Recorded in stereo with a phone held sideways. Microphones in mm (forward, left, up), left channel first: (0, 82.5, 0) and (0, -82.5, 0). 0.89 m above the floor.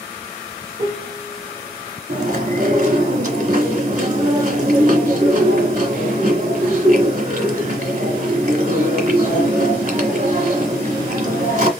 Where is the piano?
45° right (ahead or behind), 1.5 m.